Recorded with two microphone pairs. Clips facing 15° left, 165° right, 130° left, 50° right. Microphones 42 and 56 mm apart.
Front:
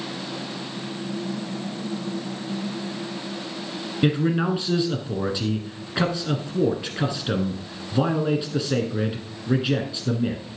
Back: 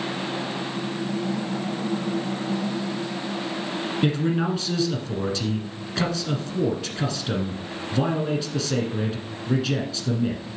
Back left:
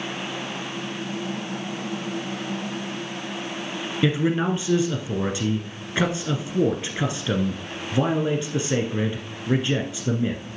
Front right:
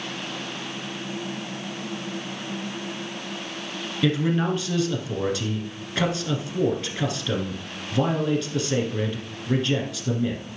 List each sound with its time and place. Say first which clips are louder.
4.0 s a man speaking: front 3 dB, back left 1 dB; 75° left, 1.3 m